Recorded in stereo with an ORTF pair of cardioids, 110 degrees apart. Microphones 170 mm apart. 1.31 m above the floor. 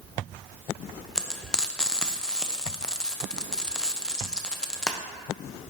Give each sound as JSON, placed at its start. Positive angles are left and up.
{"t": 1.1, "sound": "frying", "azimuth_deg": 5, "distance_m": 0.7}